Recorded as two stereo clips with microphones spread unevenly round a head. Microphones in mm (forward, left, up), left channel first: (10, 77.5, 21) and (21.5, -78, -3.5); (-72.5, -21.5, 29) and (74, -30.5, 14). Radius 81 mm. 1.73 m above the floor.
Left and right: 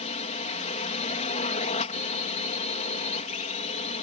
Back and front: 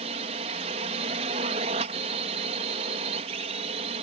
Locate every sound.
0.0 s a drone: 50° left